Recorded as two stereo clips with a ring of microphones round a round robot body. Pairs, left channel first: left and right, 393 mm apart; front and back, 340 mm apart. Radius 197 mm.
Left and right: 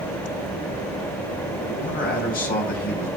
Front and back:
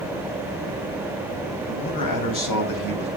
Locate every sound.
1.7 s a man speaking: 20° left, 3 m